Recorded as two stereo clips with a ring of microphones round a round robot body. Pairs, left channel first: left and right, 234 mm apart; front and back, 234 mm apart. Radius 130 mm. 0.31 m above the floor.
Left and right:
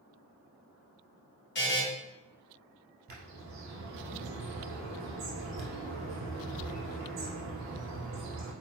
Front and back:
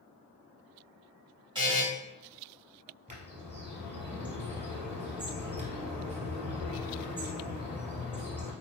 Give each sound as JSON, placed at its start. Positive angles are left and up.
{"t": 1.6, "sound": "a buzzer", "azimuth_deg": 115, "distance_m": 1.3}
{"t": 3.1, "sound": "a bird", "azimuth_deg": -115, "distance_m": 1.7}